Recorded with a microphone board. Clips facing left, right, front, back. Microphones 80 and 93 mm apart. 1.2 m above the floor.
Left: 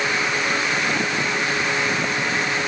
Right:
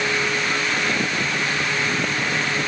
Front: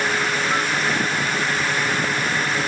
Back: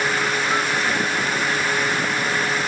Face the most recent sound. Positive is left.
No sound to turn to.